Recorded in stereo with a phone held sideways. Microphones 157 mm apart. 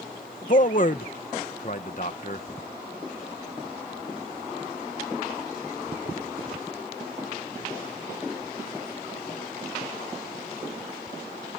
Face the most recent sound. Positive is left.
turn(degrees=55)  # may be behind; listen again after turning